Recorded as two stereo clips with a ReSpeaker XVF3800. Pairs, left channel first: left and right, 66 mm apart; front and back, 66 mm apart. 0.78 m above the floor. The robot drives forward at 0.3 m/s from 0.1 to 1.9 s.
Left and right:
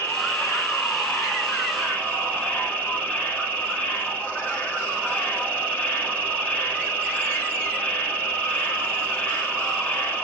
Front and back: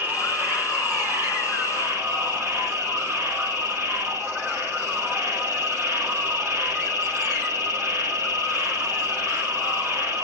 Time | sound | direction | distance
0.0 | an insect | 135° left | 1.3 m